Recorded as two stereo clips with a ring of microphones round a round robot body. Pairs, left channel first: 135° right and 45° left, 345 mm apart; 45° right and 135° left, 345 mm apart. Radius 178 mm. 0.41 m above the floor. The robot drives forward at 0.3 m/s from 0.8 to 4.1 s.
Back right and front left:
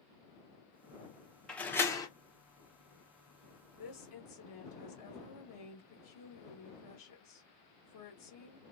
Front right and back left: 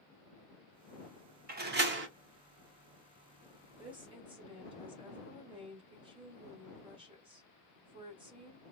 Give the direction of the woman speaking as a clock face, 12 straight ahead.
5 o'clock.